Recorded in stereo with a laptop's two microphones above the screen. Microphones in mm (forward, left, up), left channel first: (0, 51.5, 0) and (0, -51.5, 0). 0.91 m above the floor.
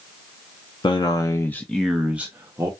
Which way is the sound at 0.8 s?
45° left (ahead or behind).